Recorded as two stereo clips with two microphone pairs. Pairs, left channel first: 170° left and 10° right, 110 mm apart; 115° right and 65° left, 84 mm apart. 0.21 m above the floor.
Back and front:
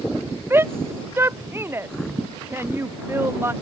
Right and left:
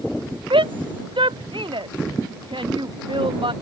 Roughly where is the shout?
Ahead left.